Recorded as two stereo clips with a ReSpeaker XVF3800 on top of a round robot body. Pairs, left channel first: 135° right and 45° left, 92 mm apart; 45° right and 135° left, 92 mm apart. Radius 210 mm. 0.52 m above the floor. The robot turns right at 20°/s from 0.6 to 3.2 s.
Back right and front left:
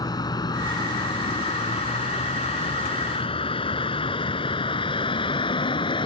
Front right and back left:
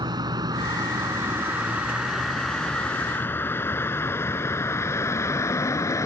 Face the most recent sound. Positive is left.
turn(degrees=-100)